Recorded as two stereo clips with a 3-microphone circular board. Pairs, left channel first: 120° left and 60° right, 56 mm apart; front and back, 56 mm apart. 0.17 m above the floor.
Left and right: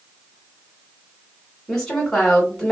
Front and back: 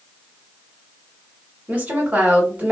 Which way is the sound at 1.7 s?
170° right.